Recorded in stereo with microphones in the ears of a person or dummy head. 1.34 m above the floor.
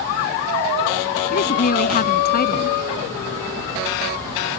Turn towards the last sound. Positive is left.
turn(degrees=50)  # may be behind; listen again after turning